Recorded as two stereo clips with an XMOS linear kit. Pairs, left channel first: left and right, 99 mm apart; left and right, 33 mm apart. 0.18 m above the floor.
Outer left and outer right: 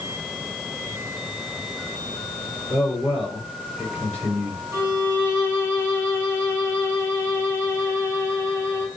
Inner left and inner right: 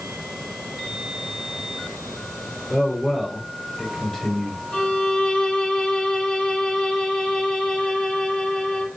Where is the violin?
30° left (ahead or behind), 1.6 m.